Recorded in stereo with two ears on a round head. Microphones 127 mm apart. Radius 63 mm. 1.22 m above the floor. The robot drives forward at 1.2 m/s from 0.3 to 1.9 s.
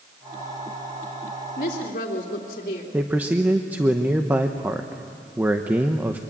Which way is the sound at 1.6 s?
65° left (ahead or behind).